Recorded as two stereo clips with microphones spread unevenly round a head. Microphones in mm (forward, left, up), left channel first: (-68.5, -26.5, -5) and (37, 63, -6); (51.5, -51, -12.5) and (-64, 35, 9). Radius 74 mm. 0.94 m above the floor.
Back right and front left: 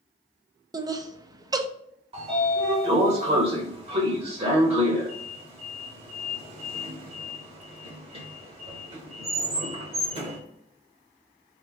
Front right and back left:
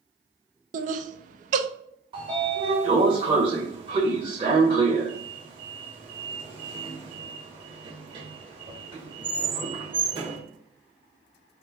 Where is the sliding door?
85° left, 1.3 m.